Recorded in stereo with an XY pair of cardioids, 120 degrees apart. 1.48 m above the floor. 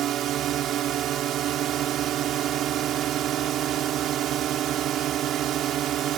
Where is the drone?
65° right.